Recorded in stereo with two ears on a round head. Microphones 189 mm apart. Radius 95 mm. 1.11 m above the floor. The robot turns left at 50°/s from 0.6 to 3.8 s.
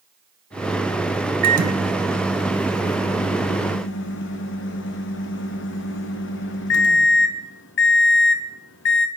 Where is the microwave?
130° right, 0.7 m; by 9.1 s 110° left, 0.7 m.